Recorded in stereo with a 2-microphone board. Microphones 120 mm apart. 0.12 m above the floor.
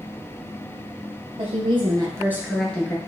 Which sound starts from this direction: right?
A woman speaking, at 1.4 s.